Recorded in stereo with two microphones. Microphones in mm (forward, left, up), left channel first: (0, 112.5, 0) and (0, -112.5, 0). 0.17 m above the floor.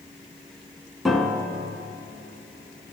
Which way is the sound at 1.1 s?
Centre (ahead or behind).